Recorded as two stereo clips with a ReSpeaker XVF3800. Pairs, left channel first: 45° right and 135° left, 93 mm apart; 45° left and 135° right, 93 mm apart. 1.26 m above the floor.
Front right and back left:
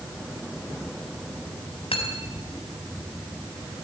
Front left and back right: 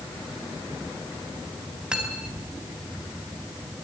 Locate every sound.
1.9 s cutlery clinking: 55° right, 5 m